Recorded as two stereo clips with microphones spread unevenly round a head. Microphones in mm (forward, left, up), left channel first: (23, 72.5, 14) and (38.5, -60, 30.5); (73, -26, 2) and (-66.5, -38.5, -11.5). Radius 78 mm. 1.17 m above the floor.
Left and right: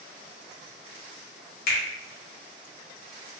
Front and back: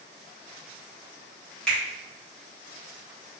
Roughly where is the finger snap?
Left.